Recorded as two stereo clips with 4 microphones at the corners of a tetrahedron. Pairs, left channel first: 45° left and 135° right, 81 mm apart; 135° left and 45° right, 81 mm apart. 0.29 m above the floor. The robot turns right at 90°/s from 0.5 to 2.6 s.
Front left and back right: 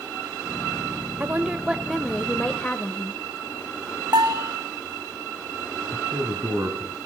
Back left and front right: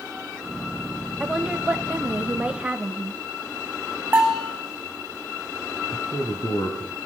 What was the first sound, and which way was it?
A woman speaking, 120° right.